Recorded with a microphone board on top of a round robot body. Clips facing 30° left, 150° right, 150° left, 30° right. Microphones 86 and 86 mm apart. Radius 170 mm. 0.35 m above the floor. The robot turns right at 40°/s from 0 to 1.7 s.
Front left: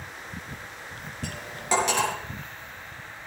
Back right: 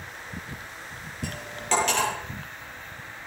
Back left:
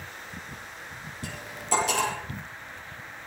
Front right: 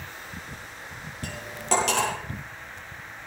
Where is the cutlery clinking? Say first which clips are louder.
Even, front right 4 dB; 65° right, 8.5 m; by 2.1 s 45° right, 8.5 m.